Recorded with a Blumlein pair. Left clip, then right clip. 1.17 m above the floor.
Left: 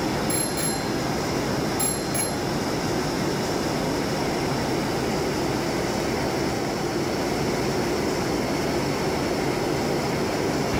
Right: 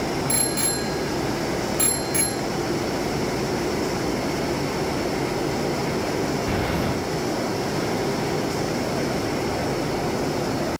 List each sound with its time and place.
0.3 s a bicycle bell: 15° right